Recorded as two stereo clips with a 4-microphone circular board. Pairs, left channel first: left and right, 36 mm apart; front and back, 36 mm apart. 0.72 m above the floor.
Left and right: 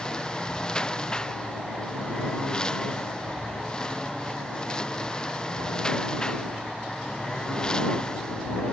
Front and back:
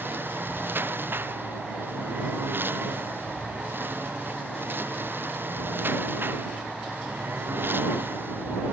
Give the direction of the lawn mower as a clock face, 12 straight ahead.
7 o'clock.